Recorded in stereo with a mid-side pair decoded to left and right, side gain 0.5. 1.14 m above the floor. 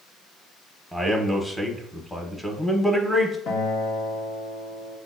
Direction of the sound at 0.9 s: Straight ahead.